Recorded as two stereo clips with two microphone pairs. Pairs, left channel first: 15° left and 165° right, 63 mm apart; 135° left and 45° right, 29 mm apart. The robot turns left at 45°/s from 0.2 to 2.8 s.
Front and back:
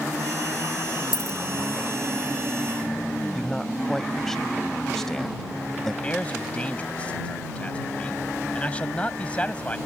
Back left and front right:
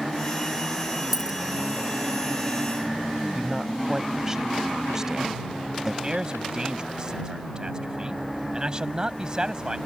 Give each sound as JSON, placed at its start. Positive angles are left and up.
{"t": 1.1, "sound": "a dropped coin", "azimuth_deg": 25}
{"t": 3.4, "sound": "a man speaking", "azimuth_deg": -55}
{"t": 6.0, "sound": "a man speaking", "azimuth_deg": -25}